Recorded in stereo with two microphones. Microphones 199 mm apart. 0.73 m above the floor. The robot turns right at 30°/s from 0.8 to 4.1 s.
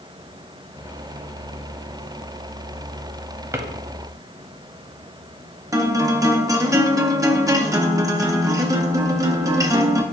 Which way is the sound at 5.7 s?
15° right (ahead or behind).